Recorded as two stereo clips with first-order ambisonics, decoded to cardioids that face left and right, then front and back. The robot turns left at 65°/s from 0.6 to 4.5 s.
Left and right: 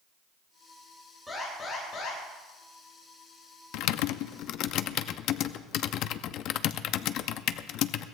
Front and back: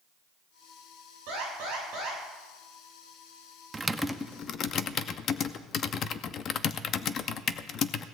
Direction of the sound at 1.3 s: 175° right.